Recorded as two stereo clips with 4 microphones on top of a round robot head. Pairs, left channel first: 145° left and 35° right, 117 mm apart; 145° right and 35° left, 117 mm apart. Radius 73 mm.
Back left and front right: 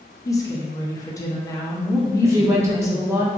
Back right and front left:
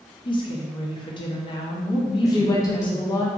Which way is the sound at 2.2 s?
95° right.